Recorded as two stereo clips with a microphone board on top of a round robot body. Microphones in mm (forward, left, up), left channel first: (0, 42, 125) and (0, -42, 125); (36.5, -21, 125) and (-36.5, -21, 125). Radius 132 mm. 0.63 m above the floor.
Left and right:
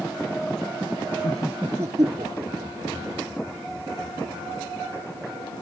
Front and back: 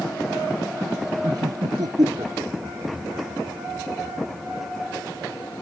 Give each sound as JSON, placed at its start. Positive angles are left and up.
{"t": 1.2, "sound": "laughter", "azimuth_deg": 155}